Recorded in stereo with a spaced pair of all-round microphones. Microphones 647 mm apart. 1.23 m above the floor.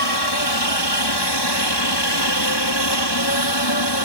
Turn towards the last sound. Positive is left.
turn(degrees=40)  # may be behind; listen again after turning